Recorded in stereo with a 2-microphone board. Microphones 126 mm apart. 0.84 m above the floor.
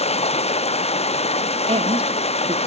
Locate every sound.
0.0 s running water: 55° left (ahead or behind), 0.8 m
1.7 s a woman speaking: 55° right (ahead or behind), 1.8 m